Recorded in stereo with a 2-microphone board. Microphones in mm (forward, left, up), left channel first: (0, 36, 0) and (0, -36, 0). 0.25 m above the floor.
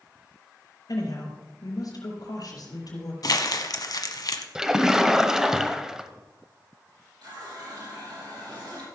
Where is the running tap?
80° right, 5.5 m.